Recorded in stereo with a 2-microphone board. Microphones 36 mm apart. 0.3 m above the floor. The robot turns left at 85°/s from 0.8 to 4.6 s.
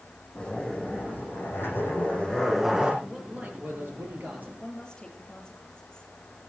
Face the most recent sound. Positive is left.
turn(degrees=20)  # may be behind; listen again after turning